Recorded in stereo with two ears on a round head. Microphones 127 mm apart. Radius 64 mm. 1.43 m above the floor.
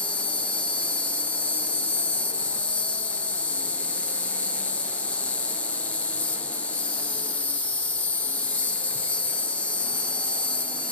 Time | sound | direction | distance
0.0 | an insect | 10° left (ahead or behind) | 0.8 m